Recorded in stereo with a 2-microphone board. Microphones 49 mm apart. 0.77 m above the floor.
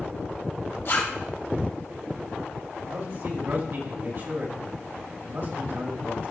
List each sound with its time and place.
0.8 s a zipper: 60° left (ahead or behind), 2.5 m
2.8 s a man speaking: 55° right (ahead or behind), 1.6 m